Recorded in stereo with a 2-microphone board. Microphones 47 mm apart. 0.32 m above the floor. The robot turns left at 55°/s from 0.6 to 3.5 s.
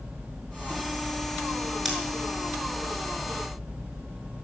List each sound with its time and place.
1.9 s scissors: 5° left (ahead or behind), 6 m; by 2.0 s 10° left (ahead or behind), 6 m